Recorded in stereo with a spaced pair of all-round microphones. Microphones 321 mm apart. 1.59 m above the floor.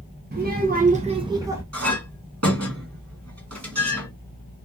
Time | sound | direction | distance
0.3 | a child speaking | 30° right (ahead or behind) | 0.6 m
1.7 | a clink | 50° right (ahead or behind) | 1.6 m